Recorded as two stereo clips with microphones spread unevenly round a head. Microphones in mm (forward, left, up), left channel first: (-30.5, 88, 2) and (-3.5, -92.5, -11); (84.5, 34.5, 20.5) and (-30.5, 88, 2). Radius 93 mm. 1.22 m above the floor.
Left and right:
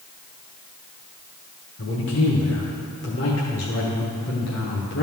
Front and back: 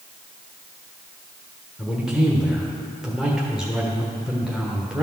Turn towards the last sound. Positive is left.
turn(degrees=75)